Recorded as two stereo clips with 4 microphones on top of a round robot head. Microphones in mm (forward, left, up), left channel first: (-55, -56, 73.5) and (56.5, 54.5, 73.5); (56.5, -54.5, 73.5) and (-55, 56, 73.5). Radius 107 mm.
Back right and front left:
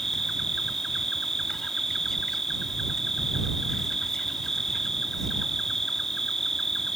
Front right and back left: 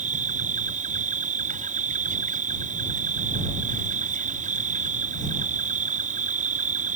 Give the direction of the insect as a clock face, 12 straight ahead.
7 o'clock.